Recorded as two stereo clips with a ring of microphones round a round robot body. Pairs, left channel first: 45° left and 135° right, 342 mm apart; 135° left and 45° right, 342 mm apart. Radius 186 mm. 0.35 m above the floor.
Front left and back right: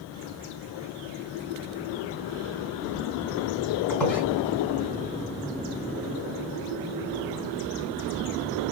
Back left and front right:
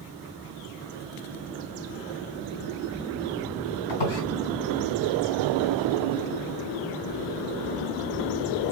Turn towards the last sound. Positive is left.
turn(degrees=130)